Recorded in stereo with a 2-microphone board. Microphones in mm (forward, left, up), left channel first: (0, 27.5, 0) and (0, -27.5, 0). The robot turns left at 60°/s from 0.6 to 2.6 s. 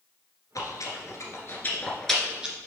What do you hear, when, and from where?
0.6 s chewing: 75° left (ahead or behind), 1.6 m; by 2.6 s 20° right (ahead or behind), 1.6 m